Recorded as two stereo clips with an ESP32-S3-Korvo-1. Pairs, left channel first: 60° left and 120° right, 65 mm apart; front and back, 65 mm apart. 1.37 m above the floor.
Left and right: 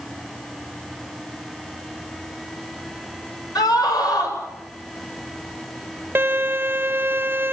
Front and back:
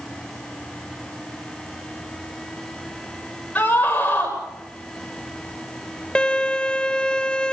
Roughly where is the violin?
Right.